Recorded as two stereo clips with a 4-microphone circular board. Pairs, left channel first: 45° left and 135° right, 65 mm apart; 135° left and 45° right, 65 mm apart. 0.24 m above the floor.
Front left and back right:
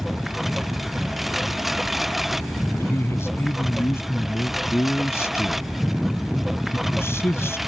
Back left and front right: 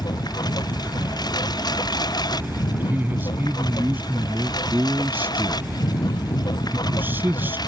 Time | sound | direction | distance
0.0 | a lawn mower | 140° left | ?
2.7 | a man speaking | 5° left | ?